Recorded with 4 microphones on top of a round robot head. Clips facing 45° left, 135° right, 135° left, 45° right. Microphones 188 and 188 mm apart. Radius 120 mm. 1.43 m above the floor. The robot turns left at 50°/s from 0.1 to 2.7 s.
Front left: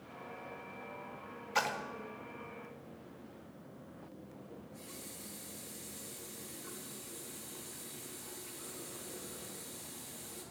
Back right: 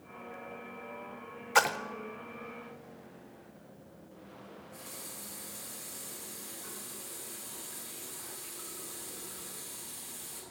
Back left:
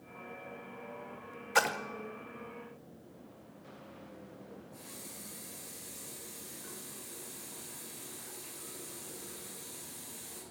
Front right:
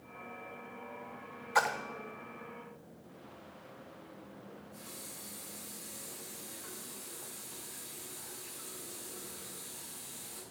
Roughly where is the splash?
Behind.